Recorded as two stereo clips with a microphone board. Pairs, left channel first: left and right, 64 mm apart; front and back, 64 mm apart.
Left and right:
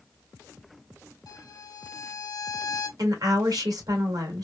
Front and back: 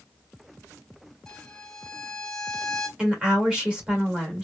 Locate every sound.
1.3 s a violin: 80° left, 0.6 m
3.0 s a woman speaking: 105° right, 1.7 m